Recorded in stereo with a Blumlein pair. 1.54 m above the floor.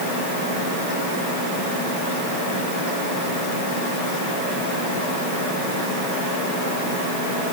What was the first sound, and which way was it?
Only background noise.